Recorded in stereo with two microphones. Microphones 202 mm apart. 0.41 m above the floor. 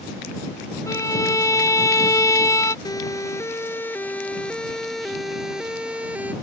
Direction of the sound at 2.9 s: 20° left (ahead or behind).